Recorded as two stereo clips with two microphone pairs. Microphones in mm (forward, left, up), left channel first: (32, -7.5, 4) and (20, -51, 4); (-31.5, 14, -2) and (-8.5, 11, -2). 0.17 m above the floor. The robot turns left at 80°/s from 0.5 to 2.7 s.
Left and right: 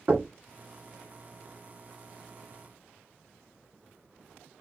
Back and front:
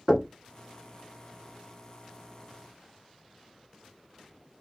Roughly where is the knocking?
Right.